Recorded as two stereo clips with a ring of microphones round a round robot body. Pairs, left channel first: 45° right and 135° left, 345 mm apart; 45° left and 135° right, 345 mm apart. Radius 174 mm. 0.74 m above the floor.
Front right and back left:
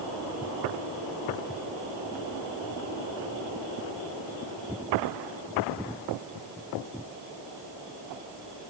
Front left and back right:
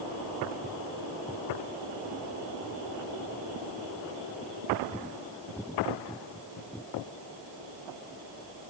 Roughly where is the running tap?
I don't hear a running tap.